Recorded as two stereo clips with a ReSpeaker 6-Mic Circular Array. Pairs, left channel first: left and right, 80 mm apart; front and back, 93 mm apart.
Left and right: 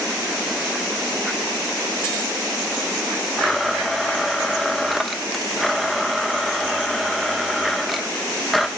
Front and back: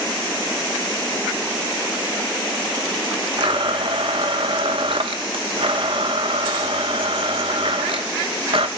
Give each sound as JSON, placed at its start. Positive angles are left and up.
{"t": 3.4, "sound": "a blender", "azimuth_deg": 180, "distance_m": 0.7}